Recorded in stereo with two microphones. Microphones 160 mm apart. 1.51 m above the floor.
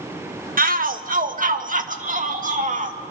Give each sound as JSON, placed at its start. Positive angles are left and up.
{"t": 0.6, "sound": "a shout", "side_deg": -65, "distance_m": 1.3}